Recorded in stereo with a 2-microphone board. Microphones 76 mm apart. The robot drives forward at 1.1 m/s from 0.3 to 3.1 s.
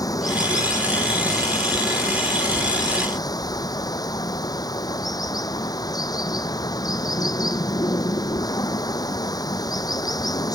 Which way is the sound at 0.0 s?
55° left (ahead or behind).